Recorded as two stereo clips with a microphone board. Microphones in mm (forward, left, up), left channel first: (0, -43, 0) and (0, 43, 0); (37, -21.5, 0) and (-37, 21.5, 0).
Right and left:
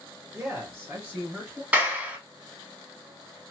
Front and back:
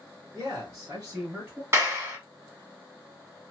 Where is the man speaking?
120° left, 1.4 m; by 1.6 s 170° right, 1.1 m.